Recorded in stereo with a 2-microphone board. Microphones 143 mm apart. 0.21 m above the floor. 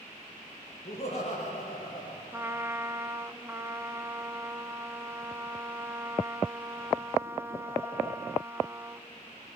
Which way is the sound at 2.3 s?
20° right (ahead or behind).